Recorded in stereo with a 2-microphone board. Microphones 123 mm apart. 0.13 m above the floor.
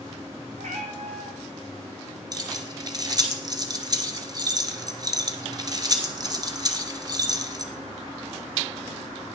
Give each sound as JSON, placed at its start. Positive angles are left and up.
{"t": 0.6, "sound": "a cat meowing", "side_deg": -75, "distance_m": 2.5}
{"t": 2.3, "sound": "keys jangling", "side_deg": -35, "distance_m": 1.3}